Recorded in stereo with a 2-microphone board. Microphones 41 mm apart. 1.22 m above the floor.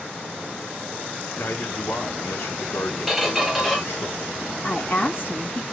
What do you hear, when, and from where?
1.4 s a man speaking: 70° left (ahead or behind), 1.2 m
3.1 s a squeak: 5° right (ahead or behind), 0.9 m
4.6 s a woman speaking: 50° left (ahead or behind), 1.4 m